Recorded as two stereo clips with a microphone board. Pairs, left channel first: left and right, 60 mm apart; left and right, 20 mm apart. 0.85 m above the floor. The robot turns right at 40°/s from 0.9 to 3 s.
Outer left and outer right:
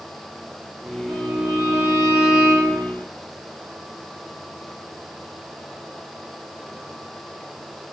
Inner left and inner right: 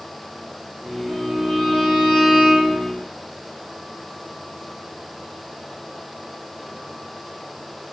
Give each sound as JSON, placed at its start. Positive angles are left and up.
{"t": 1.1, "sound": "a violin", "azimuth_deg": 45, "distance_m": 1.2}